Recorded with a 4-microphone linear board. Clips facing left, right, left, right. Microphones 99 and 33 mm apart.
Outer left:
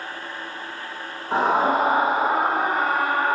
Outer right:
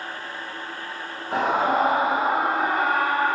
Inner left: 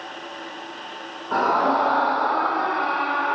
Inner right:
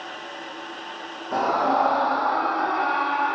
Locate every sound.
1.3 s a scream: 40° left (ahead or behind), 4 m; by 3.4 s 35° left (ahead or behind), 6 m